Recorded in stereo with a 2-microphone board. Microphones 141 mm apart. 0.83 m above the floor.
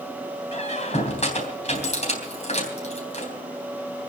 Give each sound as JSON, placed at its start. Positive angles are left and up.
{"t": 0.5, "sound": "a squeak", "side_deg": 50, "distance_m": 3.5}